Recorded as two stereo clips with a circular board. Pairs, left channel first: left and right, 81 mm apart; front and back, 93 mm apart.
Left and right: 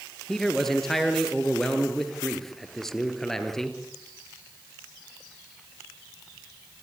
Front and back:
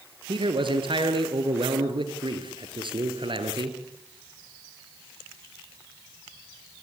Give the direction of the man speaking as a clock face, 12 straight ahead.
6 o'clock.